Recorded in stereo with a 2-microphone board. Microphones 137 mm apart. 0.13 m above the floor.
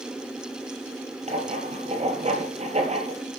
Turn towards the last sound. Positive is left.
turn(degrees=-55)  # may be behind; listen again after turning